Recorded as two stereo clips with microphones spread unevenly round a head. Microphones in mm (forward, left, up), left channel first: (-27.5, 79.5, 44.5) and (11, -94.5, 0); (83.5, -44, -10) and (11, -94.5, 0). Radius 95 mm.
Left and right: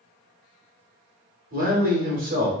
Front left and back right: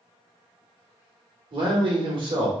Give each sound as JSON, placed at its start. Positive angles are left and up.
{"t": 1.5, "sound": "a man speaking", "azimuth_deg": -115, "distance_m": 1.2}